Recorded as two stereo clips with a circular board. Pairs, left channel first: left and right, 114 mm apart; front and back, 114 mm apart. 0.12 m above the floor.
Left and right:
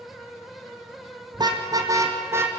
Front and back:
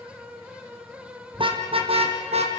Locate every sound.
1.3 s a car horn: 140° right, 3 m; by 2.5 s 160° right, 3.5 m